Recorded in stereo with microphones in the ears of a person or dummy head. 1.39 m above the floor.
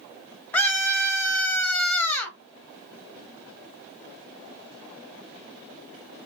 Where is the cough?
I don't hear a cough.